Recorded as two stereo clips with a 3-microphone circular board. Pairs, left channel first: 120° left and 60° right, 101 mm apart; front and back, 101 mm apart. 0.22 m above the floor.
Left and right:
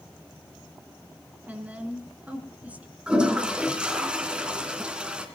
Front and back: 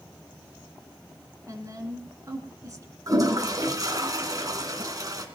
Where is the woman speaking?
135° right, 3 m.